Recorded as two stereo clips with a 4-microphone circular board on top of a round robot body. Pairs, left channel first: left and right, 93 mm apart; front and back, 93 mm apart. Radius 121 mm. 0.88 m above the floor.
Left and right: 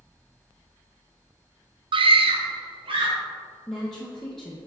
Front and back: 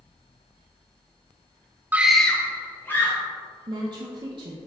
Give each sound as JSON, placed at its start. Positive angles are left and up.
{"t": 1.9, "sound": "a scream", "azimuth_deg": -110, "distance_m": 0.6}
{"t": 3.7, "sound": "a woman speaking", "azimuth_deg": 175, "distance_m": 0.9}